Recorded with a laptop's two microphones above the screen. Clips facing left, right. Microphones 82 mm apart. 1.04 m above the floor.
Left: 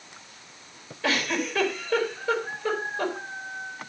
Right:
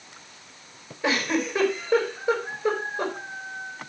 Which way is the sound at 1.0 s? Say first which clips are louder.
Right 2 dB; 20° right (ahead or behind).